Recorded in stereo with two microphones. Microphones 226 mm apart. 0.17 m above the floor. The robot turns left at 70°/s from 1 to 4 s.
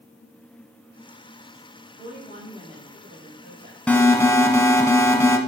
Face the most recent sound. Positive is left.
turn(degrees=10)  # may be behind; listen again after turning